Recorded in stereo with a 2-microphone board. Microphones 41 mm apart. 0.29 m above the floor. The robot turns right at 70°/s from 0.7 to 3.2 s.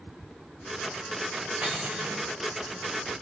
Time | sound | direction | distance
1.6 | cutlery clinking | 160° right | 1.4 m